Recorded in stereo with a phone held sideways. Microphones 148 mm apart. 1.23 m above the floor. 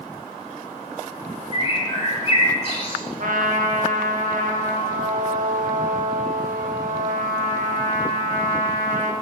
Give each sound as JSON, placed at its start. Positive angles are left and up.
{"t": 1.5, "sound": "a bird", "side_deg": 40, "distance_m": 1.4}
{"t": 3.2, "sound": "a trumpet", "side_deg": -70, "distance_m": 1.0}